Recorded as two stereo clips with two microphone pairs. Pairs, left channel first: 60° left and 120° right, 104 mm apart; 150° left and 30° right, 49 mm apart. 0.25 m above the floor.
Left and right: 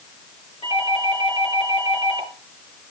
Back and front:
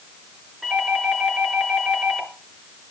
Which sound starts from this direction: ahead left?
A doorbell, at 0.6 s.